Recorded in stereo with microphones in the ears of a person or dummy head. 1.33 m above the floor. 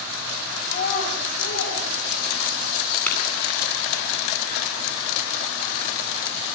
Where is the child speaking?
55° left (ahead or behind), 7 m; by 2.7 s 70° left (ahead or behind), 9 m.